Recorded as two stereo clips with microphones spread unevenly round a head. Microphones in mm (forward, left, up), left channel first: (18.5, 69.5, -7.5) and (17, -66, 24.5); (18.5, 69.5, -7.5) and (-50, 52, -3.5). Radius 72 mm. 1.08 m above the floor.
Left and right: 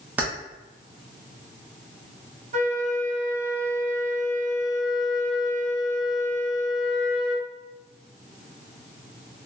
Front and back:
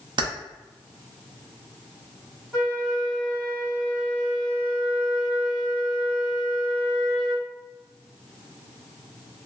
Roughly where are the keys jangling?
Behind.